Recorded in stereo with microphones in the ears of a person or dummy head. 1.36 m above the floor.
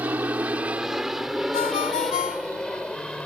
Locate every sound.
0.0 s an aircraft: 15° right (ahead or behind); by 3.3 s centre (ahead or behind)
1.5 s a ringtone: 40° left (ahead or behind)